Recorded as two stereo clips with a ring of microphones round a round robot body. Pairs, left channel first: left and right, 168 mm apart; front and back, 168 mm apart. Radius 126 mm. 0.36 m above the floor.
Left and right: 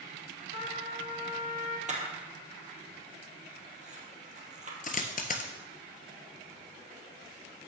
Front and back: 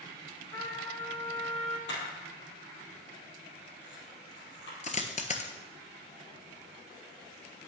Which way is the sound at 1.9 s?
45° right.